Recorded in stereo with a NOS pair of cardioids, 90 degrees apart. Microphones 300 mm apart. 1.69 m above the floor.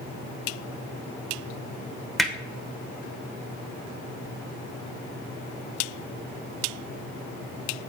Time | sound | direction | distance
2.2 | hammering | straight ahead | 1.3 m